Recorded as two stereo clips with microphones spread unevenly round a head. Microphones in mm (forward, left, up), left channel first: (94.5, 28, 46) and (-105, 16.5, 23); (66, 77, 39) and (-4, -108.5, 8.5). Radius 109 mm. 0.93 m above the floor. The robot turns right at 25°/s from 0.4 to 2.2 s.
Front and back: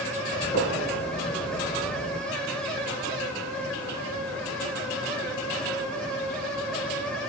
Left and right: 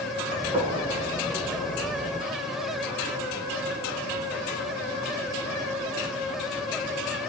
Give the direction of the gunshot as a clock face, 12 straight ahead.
2 o'clock.